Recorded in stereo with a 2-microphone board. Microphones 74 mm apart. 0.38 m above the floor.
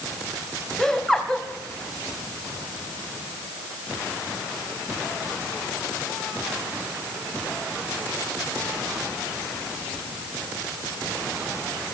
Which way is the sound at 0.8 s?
10° left (ahead or behind).